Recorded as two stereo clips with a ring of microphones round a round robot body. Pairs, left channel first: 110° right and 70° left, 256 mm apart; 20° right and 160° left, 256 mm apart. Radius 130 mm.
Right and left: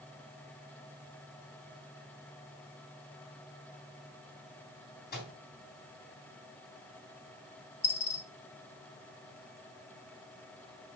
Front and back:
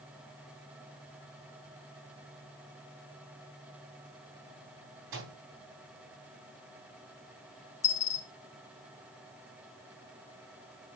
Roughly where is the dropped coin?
Ahead right.